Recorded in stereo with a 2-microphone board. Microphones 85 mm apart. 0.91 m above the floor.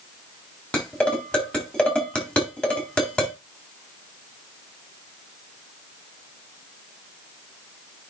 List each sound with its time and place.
0.7 s dishes clattering: 10° left (ahead or behind), 4 m